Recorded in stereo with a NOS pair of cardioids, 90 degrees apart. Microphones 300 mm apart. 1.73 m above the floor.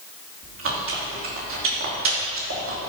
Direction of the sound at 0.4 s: 45° right.